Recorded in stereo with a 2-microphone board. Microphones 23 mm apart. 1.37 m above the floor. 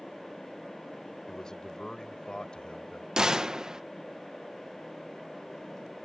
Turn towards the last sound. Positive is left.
turn(degrees=-30)  # may be behind; listen again after turning